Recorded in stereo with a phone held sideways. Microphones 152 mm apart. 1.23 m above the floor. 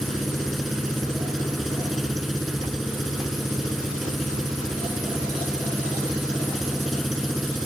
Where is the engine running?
Centre (ahead or behind).